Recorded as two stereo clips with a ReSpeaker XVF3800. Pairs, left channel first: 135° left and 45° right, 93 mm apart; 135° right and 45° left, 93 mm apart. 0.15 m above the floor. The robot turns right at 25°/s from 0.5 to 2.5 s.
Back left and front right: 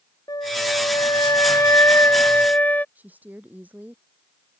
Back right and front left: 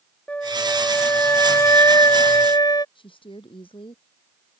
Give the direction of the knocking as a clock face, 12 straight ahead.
I don't hear knocking.